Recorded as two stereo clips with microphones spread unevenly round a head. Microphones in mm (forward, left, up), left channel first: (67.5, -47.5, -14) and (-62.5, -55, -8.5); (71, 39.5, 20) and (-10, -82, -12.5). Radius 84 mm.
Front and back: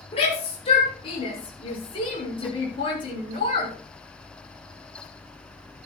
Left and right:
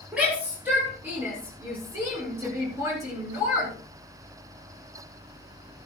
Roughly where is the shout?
Ahead right.